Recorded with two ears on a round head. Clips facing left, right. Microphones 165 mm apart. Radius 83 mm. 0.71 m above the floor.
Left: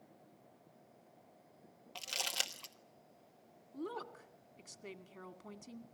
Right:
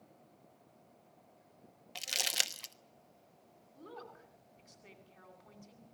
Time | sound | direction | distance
1.9 | crumpling | 15° right (ahead or behind) | 1.1 m
3.7 | a woman speaking | 60° left (ahead or behind) | 2 m